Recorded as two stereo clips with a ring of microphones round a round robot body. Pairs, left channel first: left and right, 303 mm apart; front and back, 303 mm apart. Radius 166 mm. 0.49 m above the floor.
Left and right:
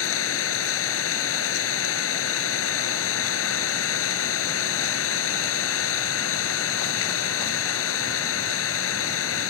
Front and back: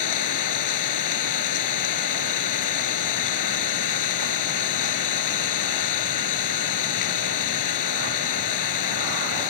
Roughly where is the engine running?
Ahead left.